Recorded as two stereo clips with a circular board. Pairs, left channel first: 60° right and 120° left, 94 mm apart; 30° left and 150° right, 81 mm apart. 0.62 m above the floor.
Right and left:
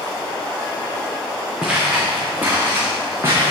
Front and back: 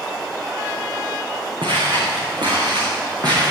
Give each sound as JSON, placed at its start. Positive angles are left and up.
{"t": 1.6, "sound": "footsteps", "azimuth_deg": -160, "distance_m": 3.5}